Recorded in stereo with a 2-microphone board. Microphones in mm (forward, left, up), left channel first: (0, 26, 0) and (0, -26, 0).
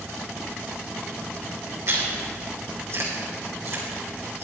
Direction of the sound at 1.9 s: 55° right (ahead or behind).